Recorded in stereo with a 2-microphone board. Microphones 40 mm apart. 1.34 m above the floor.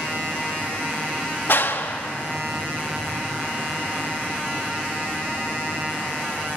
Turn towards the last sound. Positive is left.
turn(degrees=65)  # may be behind; listen again after turning